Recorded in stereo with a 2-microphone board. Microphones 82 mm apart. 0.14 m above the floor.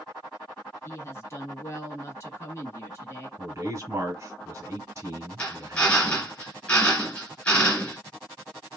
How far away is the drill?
About 2 m.